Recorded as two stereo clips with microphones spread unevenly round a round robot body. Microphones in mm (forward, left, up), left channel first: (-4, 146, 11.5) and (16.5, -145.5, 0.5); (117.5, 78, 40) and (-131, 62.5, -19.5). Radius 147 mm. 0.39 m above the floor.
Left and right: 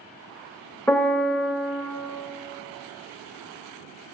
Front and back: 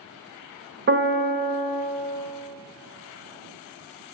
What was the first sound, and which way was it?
A piano, straight behind.